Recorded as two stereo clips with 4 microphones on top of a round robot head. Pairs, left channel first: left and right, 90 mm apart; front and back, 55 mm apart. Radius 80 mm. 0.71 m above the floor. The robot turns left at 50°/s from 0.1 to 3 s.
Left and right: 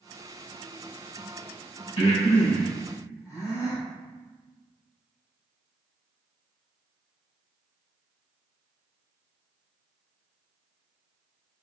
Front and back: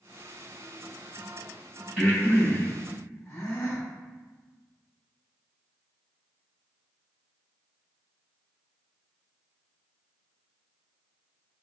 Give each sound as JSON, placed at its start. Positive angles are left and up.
{"t": 2.0, "sound": "breathing", "azimuth_deg": 85, "distance_m": 1.8}